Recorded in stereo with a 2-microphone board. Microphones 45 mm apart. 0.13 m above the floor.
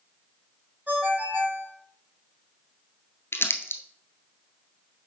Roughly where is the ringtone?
Right.